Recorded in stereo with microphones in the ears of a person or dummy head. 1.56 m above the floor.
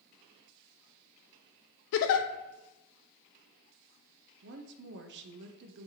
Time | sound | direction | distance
1.9 | a giggle | 70° left (ahead or behind) | 0.5 m
4.4 | a woman speaking | 55° right (ahead or behind) | 0.6 m